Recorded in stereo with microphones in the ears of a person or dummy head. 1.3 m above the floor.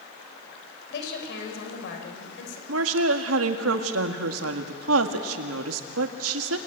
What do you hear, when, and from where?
0.9 s a woman speaking: 70° left (ahead or behind), 5.5 m
2.7 s a woman speaking: 85° right, 1.8 m